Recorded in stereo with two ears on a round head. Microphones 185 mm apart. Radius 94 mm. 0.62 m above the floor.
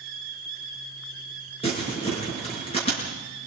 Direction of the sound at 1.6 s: 30° left (ahead or behind).